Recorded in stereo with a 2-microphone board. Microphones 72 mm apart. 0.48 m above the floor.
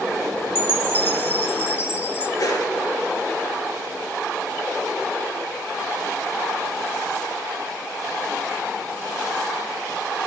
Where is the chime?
35° left (ahead or behind), 1.1 m.